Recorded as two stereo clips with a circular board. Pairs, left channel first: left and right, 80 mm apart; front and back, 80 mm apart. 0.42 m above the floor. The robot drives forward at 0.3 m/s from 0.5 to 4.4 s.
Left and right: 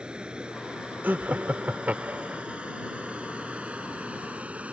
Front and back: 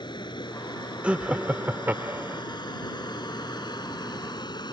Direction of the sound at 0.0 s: 10° right.